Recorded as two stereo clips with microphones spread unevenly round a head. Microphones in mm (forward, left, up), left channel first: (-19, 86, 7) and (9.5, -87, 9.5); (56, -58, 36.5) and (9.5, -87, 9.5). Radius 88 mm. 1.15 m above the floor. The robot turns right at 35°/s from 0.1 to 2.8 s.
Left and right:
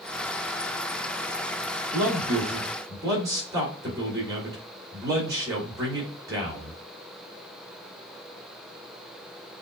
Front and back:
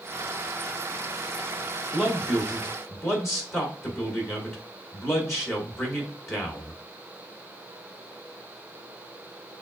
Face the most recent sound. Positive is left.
turn(degrees=-10)